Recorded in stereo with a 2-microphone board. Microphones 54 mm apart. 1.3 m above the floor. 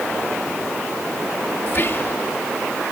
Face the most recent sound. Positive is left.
turn(degrees=50)  # may be behind; listen again after turning